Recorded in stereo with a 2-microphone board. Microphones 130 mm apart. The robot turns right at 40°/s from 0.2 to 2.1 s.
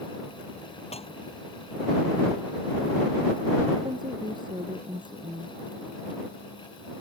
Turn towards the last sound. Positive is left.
turn(degrees=-35)  # may be behind; listen again after turning